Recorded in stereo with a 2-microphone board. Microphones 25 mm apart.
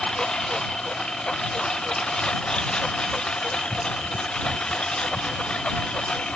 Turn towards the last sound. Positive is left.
turn(degrees=40)  # may be behind; listen again after turning